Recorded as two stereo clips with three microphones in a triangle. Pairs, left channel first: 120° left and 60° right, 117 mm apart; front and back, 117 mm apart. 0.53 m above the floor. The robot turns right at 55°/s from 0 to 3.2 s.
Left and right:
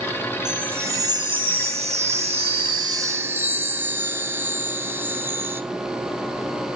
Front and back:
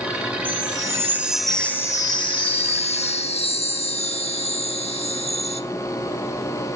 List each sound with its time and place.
0.5 s a chime: 145° right, 1.0 m; by 5.6 s 10° left, 1.0 m